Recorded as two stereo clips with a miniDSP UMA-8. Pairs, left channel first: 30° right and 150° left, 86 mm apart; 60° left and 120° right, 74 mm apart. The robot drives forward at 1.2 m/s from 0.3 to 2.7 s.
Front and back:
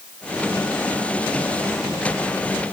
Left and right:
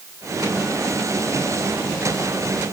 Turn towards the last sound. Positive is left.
No sound to turn to.